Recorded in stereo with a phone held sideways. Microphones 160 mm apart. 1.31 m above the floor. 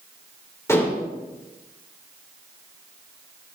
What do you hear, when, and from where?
0.7 s dishes clattering: 15° left (ahead or behind), 2.5 m